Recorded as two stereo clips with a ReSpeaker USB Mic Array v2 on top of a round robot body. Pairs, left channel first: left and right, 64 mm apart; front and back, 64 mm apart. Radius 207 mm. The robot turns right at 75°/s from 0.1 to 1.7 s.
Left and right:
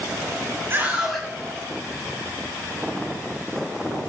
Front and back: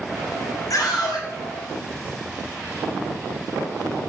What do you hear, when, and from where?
0.7 s a scream: 35° right, 7.5 m; by 1.3 s 5° left, 7.5 m